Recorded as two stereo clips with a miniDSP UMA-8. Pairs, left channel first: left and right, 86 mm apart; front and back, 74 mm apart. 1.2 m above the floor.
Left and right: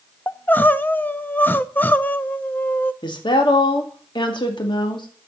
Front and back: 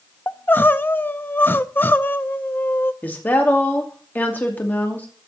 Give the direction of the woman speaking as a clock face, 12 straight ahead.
10 o'clock.